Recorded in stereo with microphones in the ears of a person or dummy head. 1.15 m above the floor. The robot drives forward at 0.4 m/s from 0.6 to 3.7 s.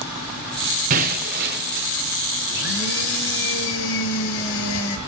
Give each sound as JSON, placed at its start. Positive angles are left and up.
{"t": 0.9, "sound": "breaking glass", "side_deg": -45, "distance_m": 1.1}
{"t": 2.5, "sound": "a blender", "side_deg": 70, "distance_m": 2.5}